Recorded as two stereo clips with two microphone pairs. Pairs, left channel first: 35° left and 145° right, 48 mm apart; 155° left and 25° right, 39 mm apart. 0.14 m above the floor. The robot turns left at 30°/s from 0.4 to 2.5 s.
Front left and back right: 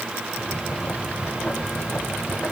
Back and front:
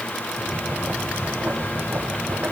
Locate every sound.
Only background noise.